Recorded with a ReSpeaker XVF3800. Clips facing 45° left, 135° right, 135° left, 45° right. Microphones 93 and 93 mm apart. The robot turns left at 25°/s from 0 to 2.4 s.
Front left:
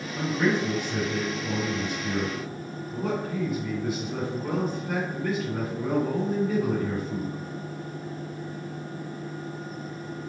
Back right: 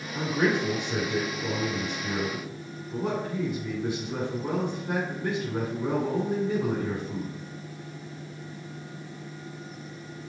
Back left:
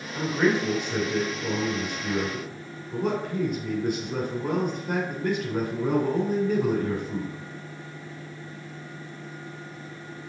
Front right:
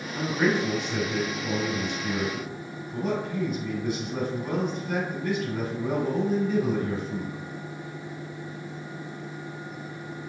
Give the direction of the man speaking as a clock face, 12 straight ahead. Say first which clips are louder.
Even, back left 1 dB; 5 o'clock.